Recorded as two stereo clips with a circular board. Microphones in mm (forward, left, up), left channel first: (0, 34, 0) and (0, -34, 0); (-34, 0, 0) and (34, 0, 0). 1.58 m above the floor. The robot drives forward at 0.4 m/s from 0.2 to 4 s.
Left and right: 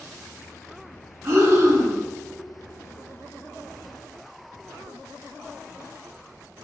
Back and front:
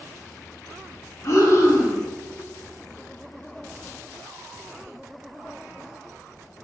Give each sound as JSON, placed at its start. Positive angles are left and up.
{"t": 1.2, "sound": "breathing", "azimuth_deg": -140, "distance_m": 1.3}